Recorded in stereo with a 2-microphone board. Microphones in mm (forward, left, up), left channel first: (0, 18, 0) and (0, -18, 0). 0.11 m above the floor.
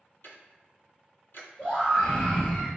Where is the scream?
35° left (ahead or behind), 1.7 m.